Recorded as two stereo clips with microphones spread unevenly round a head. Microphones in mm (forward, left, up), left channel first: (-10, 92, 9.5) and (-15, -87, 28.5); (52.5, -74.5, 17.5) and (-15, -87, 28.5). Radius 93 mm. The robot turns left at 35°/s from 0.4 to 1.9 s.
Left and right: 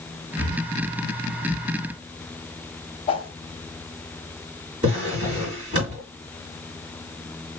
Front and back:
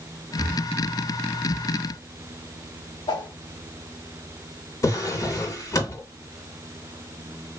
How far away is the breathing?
About 1.0 m.